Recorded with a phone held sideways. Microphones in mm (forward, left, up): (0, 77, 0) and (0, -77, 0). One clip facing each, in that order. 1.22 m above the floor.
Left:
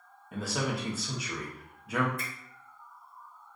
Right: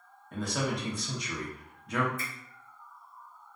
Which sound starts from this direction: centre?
A man speaking, at 0.3 s.